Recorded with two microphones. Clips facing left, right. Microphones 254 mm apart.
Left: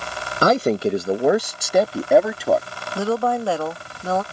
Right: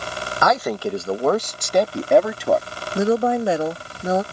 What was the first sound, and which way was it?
A man speaking, 35° left (ahead or behind).